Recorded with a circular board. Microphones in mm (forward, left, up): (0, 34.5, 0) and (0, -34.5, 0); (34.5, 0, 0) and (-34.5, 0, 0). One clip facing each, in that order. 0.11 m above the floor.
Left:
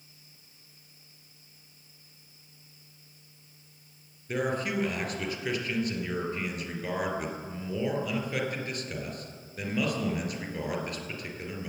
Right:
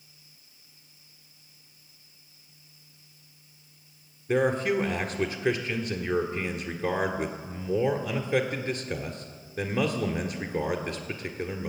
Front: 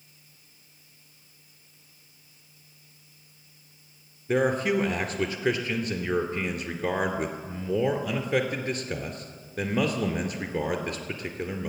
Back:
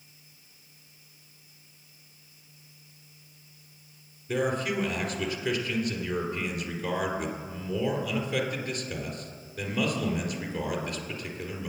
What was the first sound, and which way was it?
A man speaking, 35° right.